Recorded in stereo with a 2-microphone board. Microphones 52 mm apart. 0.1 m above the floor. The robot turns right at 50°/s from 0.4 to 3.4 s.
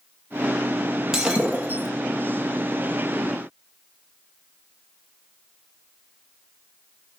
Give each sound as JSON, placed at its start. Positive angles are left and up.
{"t": 1.1, "sound": "breaking glass", "azimuth_deg": -170, "distance_m": 1.8}